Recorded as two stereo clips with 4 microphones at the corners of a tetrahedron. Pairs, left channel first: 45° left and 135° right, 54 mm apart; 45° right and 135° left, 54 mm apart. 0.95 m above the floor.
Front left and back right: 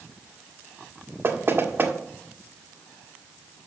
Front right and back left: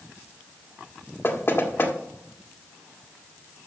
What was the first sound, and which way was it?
Knocking, 90° right.